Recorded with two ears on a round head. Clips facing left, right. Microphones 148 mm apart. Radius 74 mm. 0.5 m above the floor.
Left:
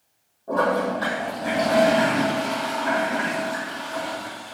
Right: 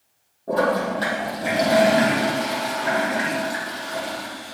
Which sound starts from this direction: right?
A toilet flushing, at 0.5 s.